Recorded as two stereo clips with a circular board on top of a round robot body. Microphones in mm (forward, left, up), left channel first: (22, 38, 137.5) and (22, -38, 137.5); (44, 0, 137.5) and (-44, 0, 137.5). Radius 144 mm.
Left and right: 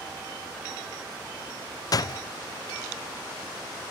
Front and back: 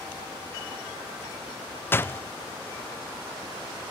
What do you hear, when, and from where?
1.9 s a door slam: 65° left, 0.7 m